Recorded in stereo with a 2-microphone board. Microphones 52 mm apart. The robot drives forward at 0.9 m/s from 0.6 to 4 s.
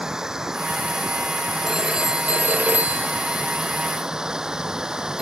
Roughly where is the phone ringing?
Centre.